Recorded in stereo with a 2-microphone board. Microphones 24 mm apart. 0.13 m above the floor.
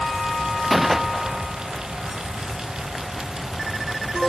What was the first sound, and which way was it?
A gunshot, 10° right (ahead or behind).